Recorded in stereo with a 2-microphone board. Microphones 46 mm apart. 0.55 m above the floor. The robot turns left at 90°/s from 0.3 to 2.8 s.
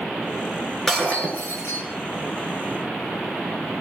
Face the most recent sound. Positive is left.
turn(degrees=-5)